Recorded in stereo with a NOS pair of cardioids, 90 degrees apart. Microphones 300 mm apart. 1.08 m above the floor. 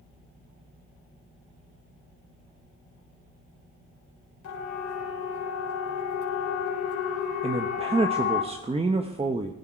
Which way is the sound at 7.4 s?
20° right.